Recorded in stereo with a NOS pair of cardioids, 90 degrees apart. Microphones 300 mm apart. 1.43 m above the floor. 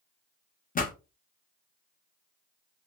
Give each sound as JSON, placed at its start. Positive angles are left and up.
{"t": 0.8, "sound": "a pop", "azimuth_deg": 25, "distance_m": 0.8}